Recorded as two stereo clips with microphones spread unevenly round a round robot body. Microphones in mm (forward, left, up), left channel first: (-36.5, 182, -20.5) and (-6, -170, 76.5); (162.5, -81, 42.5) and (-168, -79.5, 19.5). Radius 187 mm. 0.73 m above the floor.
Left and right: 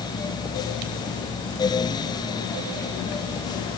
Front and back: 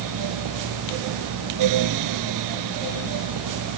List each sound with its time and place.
Only background noise.